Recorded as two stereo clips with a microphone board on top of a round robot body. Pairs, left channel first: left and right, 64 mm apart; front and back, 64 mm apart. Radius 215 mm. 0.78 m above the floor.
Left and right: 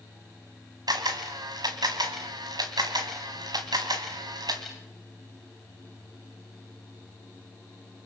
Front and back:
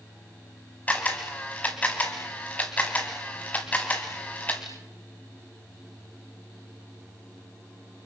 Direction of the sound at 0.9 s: 70° right.